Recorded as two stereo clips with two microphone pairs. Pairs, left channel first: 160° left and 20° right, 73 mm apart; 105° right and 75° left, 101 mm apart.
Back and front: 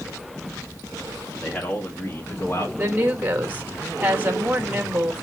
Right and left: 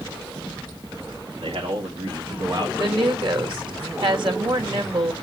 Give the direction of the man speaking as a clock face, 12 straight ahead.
9 o'clock.